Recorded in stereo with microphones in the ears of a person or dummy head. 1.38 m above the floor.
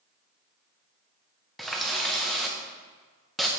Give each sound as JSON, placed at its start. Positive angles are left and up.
{"t": 1.6, "sound": "a running tap", "side_deg": 5, "distance_m": 0.7}